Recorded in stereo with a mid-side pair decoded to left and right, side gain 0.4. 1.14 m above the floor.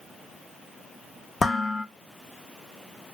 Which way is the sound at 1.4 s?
45° left.